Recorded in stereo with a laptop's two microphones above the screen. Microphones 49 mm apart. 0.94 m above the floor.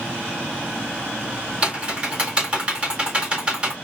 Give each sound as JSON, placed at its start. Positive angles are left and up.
{"t": 1.6, "sound": "typing on a keyboard", "side_deg": -20, "distance_m": 1.5}